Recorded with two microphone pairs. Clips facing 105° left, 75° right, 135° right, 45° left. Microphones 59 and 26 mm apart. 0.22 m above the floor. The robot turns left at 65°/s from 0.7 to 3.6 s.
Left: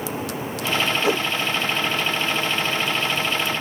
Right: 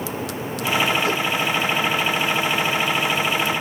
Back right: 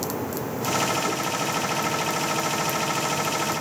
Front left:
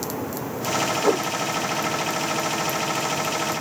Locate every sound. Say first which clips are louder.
1.0 s a whoosh: left 1 dB, front left 5 dB; 35° left; by 1.3 s 20° left